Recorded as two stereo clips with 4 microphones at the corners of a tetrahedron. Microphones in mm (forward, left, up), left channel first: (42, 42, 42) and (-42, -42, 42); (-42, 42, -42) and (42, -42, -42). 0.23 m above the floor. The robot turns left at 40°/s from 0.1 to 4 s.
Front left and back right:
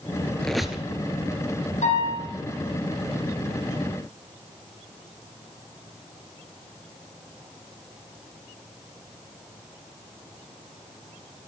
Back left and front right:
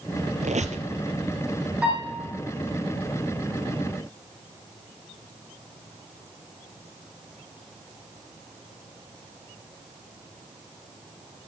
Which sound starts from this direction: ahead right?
A squeak, at 0.4 s.